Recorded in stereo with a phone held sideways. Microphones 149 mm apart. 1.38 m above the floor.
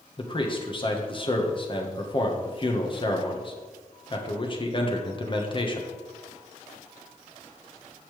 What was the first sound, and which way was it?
A man speaking, 35° left (ahead or behind).